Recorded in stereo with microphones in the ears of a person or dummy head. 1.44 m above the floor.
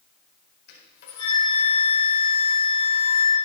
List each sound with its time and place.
0.7 s a flute: 60° left (ahead or behind), 4.5 m